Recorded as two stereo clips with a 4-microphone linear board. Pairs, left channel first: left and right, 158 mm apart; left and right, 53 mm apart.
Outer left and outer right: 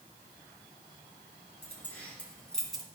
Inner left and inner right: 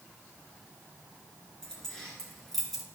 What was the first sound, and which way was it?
Keys jangling, 10° left (ahead or behind).